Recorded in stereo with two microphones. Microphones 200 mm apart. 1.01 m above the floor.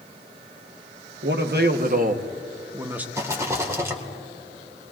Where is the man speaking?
60° right (ahead or behind), 1.2 m; by 3.0 s 5° right (ahead or behind), 0.9 m.